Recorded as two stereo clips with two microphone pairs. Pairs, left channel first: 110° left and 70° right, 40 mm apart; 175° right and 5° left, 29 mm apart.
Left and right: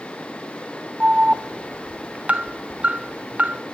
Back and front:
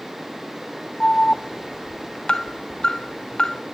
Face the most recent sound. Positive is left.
turn(degrees=-120)